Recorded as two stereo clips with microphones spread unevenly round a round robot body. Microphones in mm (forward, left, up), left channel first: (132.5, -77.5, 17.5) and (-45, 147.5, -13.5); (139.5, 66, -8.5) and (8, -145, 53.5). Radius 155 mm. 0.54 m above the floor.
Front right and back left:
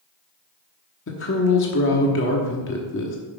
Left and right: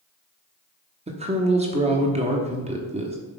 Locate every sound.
1.1 s a woman speaking: 55° right, 1.1 m